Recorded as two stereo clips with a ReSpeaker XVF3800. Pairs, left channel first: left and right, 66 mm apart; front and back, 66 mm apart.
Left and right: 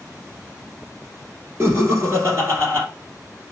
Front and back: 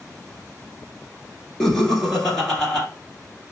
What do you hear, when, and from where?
1.6 s laughter: 80° right, 1.4 m